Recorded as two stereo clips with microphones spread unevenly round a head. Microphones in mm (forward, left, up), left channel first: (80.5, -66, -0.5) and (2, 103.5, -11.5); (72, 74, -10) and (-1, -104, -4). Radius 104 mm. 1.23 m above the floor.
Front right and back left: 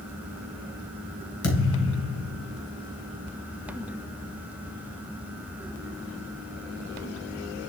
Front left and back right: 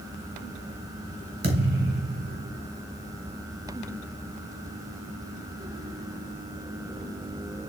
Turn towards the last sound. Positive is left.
turn(degrees=-80)